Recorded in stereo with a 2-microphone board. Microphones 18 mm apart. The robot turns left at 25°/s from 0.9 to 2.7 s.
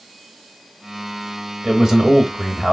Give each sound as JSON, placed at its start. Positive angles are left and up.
{"t": 1.6, "sound": "a man speaking", "side_deg": -35, "distance_m": 1.1}